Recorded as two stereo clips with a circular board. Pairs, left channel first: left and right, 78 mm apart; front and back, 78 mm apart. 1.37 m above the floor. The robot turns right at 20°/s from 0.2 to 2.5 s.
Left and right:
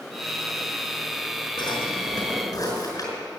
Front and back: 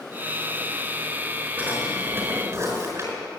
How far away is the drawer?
About 5 m.